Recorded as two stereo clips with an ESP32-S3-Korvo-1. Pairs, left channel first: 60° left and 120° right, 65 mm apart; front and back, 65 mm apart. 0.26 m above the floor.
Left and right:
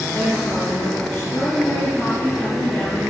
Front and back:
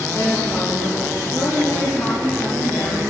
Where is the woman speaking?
5° left, 3.5 m; by 3.0 s 25° right, 5 m.